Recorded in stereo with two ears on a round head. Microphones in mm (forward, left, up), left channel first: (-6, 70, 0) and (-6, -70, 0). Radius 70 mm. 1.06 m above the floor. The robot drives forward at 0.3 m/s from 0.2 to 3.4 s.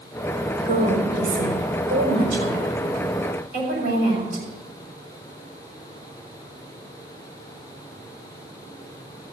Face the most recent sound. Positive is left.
turn(degrees=-60)  # may be behind; listen again after turning